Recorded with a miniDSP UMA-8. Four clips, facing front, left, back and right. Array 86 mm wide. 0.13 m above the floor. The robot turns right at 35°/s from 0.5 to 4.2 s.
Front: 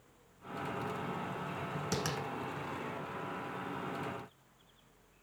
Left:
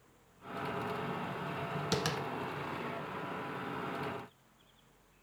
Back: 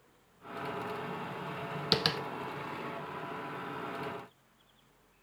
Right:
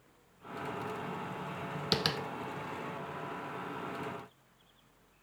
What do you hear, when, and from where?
1.9 s tapping: 160° right, 0.6 m; by 2.2 s 150° right, 0.6 m